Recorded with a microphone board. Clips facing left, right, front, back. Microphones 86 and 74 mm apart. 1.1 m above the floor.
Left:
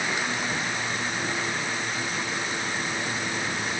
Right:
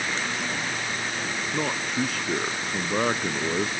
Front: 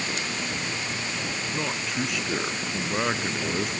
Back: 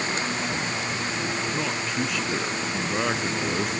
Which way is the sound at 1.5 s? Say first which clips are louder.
Right 3 dB, back 2 dB; 85° right.